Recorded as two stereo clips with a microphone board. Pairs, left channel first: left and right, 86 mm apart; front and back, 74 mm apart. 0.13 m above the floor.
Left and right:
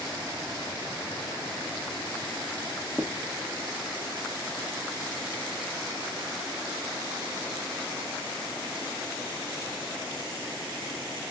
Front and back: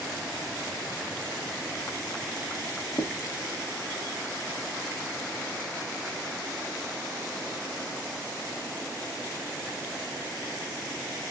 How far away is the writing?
About 1.4 m.